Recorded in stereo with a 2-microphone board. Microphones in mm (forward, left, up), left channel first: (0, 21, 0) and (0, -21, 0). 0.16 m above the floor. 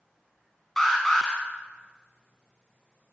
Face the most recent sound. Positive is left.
turn(degrees=10)  # may be behind; listen again after turning